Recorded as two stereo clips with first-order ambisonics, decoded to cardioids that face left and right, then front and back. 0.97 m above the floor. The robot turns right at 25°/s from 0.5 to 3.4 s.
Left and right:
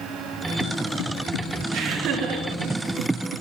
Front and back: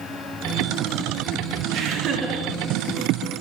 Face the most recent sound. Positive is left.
turn(degrees=-100)